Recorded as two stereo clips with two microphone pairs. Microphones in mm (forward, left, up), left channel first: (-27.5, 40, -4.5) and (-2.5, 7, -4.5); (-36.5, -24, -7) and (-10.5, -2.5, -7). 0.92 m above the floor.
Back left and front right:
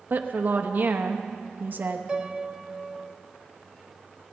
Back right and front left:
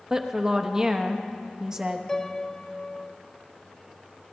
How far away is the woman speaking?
About 1.0 m.